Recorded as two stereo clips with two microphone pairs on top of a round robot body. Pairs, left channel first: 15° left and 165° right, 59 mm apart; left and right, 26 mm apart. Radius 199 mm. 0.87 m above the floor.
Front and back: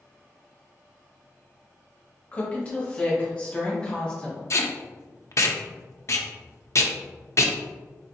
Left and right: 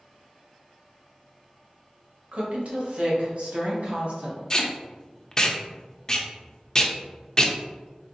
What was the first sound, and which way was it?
A woman speaking, 55° right.